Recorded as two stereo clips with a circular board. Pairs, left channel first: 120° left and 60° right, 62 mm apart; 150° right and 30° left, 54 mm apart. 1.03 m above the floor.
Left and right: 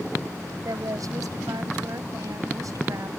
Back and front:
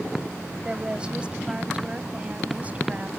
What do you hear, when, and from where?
0.7 s a woman speaking: 45° right; by 3.1 s 35° right